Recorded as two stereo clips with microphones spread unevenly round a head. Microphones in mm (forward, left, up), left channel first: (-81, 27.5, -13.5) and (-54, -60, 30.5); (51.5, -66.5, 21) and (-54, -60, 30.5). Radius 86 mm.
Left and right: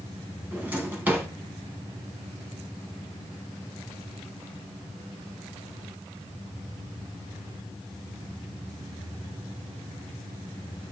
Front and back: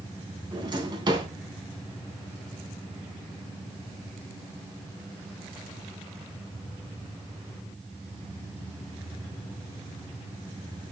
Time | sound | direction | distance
0.5 | a drawer | 140° right | 3.5 m